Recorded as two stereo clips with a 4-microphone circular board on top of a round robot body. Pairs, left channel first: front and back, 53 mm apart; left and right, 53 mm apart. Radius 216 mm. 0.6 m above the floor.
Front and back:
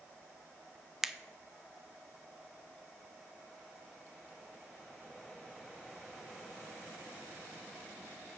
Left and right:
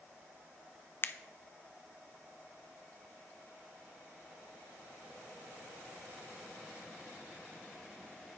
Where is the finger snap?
100° left, 0.6 m.